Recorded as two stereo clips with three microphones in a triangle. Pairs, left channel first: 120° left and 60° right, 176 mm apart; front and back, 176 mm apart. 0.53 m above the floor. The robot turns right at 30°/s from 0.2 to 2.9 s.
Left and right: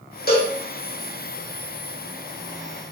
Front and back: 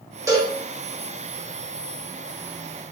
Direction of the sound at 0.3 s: 110° left.